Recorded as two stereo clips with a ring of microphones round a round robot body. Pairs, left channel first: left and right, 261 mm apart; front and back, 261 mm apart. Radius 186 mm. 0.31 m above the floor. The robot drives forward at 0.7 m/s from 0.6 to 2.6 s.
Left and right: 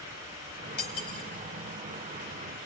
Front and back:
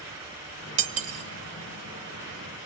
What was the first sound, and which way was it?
Cutlery clinking, 145° left.